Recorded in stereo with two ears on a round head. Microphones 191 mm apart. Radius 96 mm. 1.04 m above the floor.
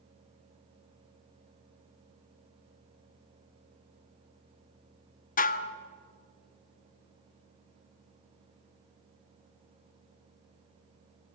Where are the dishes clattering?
40° left (ahead or behind), 0.8 m.